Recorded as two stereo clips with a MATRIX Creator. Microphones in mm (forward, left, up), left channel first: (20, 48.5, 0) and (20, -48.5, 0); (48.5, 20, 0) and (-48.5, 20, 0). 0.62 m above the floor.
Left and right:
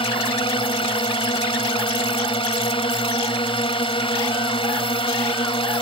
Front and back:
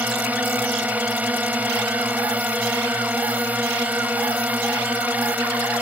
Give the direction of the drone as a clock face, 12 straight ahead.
8 o'clock.